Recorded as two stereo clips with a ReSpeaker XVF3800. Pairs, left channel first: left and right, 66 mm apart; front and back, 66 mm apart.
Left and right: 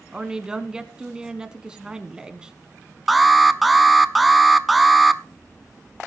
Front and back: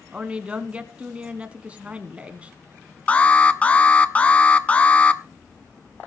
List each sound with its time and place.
0.1 s a woman speaking: 145° right, 1.1 m
3.1 s an alarm: straight ahead, 0.7 m